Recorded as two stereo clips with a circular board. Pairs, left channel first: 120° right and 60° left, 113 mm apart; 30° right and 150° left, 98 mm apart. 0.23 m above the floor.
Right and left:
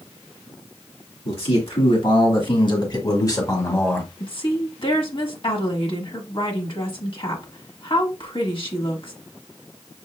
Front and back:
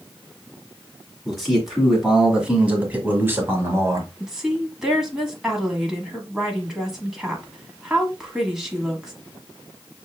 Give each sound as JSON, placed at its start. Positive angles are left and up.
{"t": 1.2, "sound": "a man speaking", "azimuth_deg": -120, "distance_m": 2.0}
{"t": 4.2, "sound": "a woman speaking", "azimuth_deg": -125, "distance_m": 1.4}